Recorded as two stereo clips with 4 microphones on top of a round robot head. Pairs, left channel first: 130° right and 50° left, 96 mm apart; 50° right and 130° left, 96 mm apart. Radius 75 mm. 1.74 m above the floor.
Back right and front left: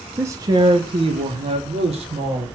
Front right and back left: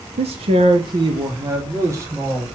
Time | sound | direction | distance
0.2 | a man speaking | 115° left | 0.8 m